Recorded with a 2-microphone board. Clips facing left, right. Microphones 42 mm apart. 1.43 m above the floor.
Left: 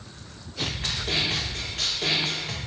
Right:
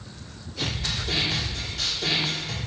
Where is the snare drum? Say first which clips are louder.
Even; 45° left (ahead or behind), 2.5 m.